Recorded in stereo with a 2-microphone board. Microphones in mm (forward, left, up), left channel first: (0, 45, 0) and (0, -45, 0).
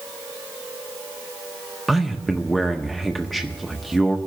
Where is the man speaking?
Centre (ahead or behind), 0.6 m.